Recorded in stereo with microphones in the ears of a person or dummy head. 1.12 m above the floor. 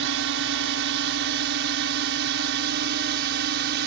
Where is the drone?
65° right (ahead or behind); by 3.9 s 60° right (ahead or behind).